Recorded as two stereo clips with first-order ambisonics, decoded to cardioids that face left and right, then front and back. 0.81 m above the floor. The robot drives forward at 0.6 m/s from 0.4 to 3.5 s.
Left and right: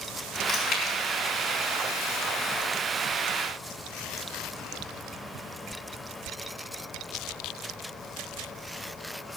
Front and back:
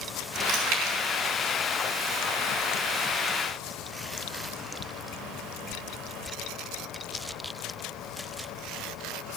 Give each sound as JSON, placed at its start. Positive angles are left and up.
{"t": 0.5, "sound": "chewing", "azimuth_deg": 160, "distance_m": 3.5}